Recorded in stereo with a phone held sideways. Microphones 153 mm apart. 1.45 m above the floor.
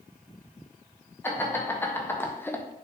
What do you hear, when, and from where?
1.2 s laughter: 15° left (ahead or behind), 1.9 m